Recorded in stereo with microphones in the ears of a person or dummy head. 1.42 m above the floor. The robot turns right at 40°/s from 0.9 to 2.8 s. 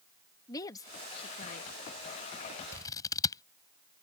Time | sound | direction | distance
0.5 | a woman speaking | 20° left | ?
2.7 | scissors | 20° left (ahead or behind) | ?